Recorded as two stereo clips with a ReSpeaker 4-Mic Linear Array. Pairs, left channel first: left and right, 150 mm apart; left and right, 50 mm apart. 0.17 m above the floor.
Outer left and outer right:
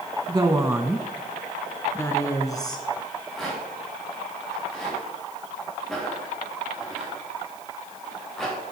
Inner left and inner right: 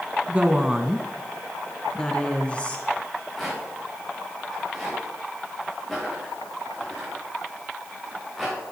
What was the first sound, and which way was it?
A woman speaking, 30° right (ahead or behind).